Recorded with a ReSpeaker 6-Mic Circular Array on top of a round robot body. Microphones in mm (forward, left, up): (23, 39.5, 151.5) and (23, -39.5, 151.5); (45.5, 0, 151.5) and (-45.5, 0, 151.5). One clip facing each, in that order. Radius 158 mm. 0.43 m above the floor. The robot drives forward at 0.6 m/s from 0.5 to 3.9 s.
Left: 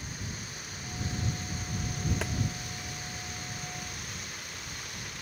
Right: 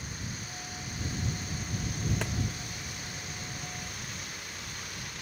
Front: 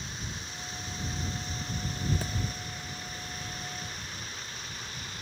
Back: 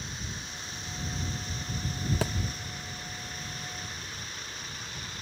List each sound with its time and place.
2.2 s a thud: straight behind, 0.8 m